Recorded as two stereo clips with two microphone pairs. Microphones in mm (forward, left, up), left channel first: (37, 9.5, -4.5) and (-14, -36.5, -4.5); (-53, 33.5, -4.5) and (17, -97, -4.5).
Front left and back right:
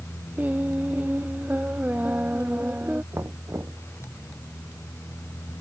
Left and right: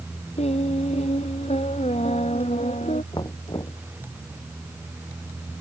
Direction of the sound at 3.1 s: 175° left.